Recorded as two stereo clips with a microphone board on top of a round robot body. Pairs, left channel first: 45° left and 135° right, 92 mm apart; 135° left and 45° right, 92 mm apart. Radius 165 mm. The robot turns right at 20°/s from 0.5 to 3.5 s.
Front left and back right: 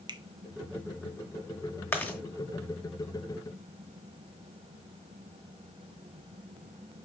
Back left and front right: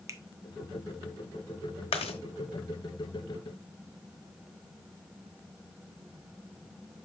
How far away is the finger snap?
About 1.0 m.